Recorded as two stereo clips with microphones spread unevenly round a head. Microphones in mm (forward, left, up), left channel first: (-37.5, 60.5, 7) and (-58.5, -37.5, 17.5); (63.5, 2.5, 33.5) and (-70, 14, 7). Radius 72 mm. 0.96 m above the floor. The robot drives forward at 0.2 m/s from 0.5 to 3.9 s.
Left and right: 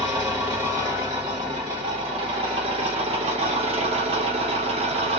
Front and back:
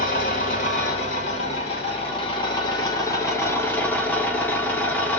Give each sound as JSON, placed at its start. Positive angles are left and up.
{"t": 0.0, "sound": "an engine running", "azimuth_deg": -45, "distance_m": 1.0}